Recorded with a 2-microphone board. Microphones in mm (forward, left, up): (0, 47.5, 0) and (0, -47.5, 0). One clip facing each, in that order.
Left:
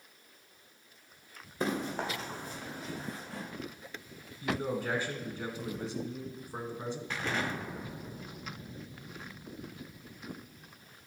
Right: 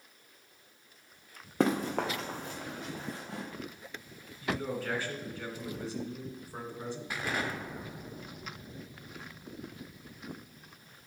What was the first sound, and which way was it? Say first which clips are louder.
Running footsteps: right 5 dB; 70° right (ahead or behind).